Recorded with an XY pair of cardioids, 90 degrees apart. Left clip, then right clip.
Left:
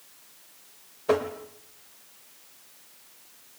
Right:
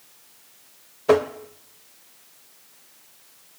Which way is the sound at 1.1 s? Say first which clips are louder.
Right 6 dB; 45° right.